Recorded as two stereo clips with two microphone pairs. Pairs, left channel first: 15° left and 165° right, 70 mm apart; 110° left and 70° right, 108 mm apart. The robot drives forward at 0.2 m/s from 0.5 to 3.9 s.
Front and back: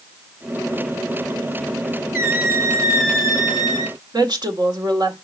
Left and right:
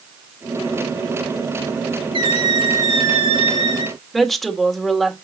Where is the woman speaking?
160° right, 2 m.